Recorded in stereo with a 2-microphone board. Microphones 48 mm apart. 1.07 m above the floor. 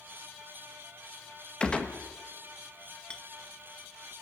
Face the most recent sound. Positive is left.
turn(degrees=20)  # may be behind; listen again after turning